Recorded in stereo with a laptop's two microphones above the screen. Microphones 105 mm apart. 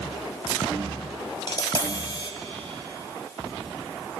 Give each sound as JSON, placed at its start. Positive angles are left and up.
{"t": 1.5, "sound": "tapping", "side_deg": 40, "distance_m": 0.7}